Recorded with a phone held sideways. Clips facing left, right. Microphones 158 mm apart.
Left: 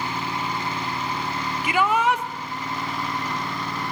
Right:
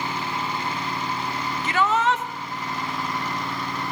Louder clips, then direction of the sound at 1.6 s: Left 1 dB; 10° left (ahead or behind).